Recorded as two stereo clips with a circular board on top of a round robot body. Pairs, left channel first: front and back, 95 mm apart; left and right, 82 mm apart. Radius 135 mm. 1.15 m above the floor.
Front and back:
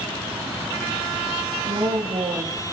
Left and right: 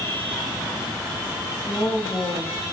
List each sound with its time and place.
1.6 s a woman speaking: 160° left, 2.5 m